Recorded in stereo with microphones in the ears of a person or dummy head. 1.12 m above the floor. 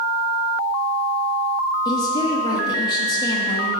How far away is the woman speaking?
About 0.8 m.